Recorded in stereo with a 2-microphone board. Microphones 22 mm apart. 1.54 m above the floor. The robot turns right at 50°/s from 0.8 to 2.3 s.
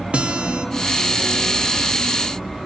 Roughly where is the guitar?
Right.